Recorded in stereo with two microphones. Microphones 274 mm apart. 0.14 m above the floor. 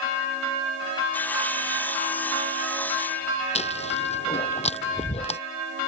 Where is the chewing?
25° left (ahead or behind).